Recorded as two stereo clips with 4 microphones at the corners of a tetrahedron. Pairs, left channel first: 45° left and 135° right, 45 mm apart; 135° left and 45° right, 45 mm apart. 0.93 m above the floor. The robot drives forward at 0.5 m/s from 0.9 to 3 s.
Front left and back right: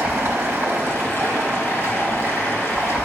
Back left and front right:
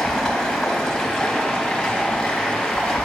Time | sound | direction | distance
0.0 | running water | 150° right | 1.8 m